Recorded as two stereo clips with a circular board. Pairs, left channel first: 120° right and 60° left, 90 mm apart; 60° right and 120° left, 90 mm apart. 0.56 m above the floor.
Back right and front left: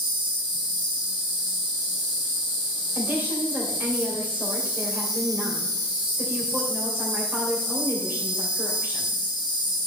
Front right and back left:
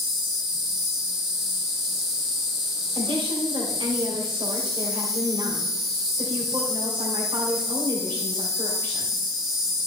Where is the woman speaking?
125° left, 2 m.